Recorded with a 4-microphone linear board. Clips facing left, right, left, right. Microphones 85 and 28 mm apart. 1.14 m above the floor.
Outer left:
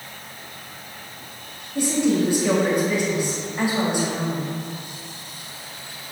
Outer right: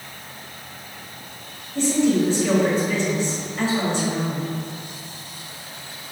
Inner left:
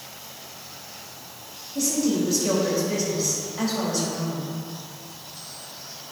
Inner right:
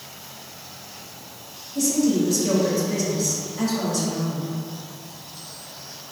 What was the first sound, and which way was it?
A woman speaking, 15° left (ahead or behind).